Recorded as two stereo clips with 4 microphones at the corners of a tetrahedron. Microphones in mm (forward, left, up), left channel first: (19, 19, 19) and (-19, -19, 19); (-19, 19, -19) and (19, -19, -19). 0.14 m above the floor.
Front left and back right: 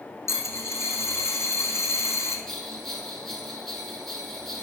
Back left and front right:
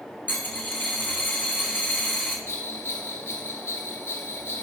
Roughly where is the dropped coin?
Left.